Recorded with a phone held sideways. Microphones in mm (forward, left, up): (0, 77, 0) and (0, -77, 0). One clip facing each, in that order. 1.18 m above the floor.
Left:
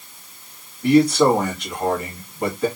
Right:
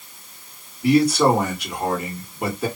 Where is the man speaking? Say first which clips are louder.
Left 2 dB; 5° right (ahead or behind), 2.5 m.